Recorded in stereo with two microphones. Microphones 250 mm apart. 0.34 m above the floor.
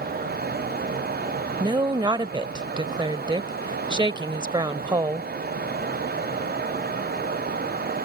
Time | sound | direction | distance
1.6 | a woman speaking | 20° right (ahead or behind) | ?